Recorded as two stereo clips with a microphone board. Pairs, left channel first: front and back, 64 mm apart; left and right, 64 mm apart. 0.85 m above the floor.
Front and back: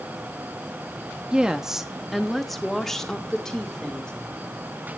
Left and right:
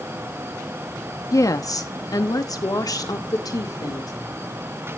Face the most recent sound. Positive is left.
turn(degrees=75)